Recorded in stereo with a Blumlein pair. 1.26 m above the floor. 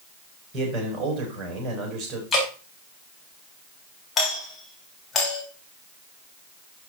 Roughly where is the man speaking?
Ahead.